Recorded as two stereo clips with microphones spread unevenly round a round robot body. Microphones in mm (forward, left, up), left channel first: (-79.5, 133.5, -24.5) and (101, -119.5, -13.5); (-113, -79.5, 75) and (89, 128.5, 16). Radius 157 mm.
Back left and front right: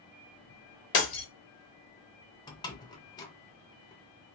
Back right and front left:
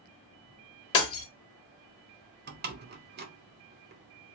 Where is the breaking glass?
175° left, 1.0 m.